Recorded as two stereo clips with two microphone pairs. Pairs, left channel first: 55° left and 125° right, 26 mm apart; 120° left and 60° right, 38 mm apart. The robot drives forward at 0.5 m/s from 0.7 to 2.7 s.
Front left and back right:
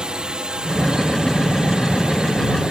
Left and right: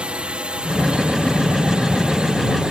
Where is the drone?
100° right; by 2.7 s 110° right.